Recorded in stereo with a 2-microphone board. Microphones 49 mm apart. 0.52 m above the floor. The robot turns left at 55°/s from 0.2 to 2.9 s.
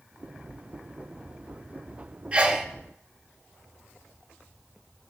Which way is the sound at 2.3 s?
20° right (ahead or behind).